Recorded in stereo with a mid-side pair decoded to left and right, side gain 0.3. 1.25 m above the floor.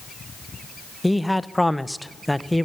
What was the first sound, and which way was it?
A man speaking, 10° left.